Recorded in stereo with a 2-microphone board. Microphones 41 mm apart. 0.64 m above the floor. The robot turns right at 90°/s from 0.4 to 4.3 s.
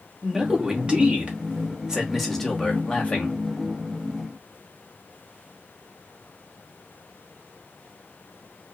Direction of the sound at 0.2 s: 170° right.